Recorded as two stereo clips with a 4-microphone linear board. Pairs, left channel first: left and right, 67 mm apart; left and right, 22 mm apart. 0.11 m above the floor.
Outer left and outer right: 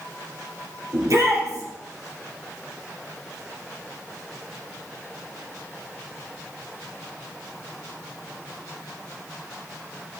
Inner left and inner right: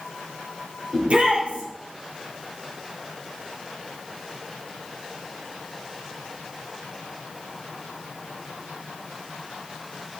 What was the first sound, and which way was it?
A shout, 55° right (ahead or behind).